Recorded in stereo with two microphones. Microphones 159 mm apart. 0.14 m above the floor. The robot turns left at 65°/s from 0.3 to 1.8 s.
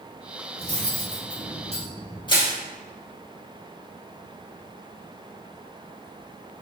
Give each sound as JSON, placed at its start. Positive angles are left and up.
{"t": 0.6, "sound": "cutlery clinking", "side_deg": -50, "distance_m": 1.8}
{"t": 2.3, "sound": "crushing", "side_deg": 30, "distance_m": 1.8}